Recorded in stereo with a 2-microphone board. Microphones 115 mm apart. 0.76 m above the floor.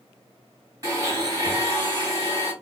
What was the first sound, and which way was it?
A blender, 30° right (ahead or behind).